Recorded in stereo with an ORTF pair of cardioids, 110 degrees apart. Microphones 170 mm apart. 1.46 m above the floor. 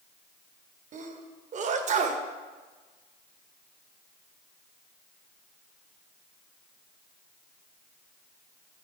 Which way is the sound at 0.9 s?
50° right.